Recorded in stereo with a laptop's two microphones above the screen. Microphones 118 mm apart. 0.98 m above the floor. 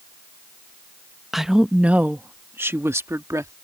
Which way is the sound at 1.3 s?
Centre (ahead or behind).